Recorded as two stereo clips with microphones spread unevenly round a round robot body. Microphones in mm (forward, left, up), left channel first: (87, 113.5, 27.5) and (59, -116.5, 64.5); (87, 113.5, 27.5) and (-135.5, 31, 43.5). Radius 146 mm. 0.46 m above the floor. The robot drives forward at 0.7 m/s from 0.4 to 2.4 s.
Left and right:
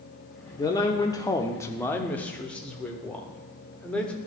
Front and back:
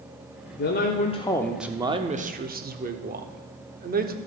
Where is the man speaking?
25° left, 0.9 m; by 4.1 s 160° left, 1.0 m.